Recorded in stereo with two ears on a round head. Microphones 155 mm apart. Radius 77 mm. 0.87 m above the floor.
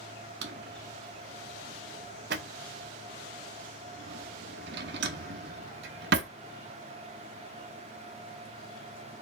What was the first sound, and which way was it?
A drawer, 65° right (ahead or behind).